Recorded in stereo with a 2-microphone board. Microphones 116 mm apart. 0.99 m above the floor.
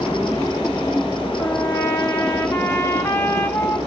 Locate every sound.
1.4 s a trumpet: 20° left (ahead or behind), 2 m